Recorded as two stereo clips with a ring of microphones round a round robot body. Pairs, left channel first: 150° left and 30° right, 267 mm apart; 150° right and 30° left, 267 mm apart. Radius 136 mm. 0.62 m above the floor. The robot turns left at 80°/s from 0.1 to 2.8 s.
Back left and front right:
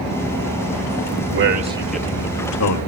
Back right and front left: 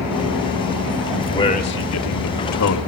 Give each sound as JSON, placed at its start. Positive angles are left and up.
{"t": 1.3, "sound": "a man speaking", "azimuth_deg": -70, "distance_m": 2.5}